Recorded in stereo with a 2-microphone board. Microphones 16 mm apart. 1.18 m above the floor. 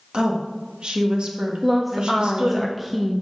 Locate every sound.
0.1 s a woman speaking: 55° right (ahead or behind), 1.6 m
1.6 s a woman speaking: 10° right (ahead or behind), 0.7 m